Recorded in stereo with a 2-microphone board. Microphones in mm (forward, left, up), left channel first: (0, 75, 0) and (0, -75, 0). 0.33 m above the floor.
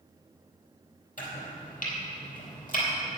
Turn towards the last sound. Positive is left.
turn(degrees=65)  # may be behind; listen again after turning